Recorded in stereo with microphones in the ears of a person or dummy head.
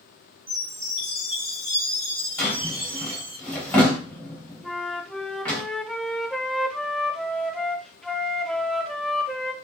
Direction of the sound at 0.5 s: 10° right (ahead or behind).